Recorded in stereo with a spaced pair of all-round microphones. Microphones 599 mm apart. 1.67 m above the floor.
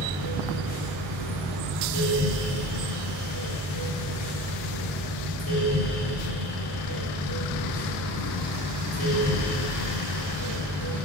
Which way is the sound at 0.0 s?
30° left (ahead or behind).